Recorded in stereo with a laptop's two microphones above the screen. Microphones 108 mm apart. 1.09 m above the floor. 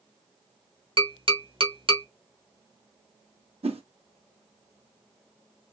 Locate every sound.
1.0 s tapping: 50° right (ahead or behind), 1.1 m
3.6 s a whoosh: 60° right (ahead or behind), 0.8 m